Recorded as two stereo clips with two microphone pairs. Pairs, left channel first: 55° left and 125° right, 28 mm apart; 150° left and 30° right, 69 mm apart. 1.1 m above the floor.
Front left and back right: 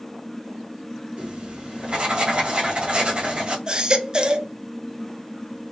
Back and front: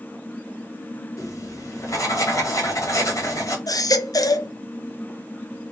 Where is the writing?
175° right, 1.8 m.